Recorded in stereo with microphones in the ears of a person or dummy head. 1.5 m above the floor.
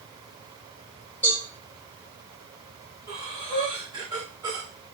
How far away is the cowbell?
About 1.9 m.